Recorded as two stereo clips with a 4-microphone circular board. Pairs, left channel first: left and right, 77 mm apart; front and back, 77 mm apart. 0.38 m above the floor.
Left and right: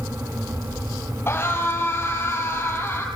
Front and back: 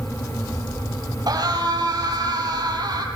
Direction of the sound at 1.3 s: 150° left.